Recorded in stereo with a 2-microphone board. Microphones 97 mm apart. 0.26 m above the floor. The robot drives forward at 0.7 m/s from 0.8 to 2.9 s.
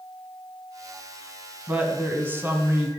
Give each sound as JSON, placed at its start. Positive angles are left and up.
{"t": 1.7, "sound": "a woman speaking", "side_deg": -20, "distance_m": 1.7}